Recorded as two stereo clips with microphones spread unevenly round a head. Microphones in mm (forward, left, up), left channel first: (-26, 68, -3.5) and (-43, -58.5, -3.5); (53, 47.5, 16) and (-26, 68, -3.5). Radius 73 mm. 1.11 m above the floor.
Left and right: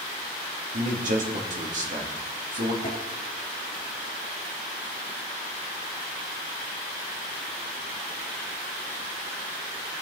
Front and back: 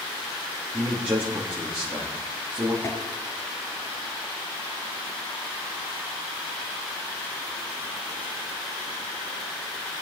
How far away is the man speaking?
About 2.5 m.